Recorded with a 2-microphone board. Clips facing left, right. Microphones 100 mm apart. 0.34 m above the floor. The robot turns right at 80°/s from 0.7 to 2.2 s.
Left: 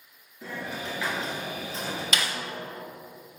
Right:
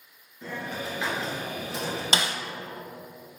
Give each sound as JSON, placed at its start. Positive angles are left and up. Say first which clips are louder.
{"t": 0.4, "sound": "a hiss", "louder": "right 1 dB", "azimuth_deg": 175, "distance_m": 2.5}
{"t": 2.1, "sound": "a snare drum", "louder": "right 3 dB", "side_deg": -30, "distance_m": 0.6}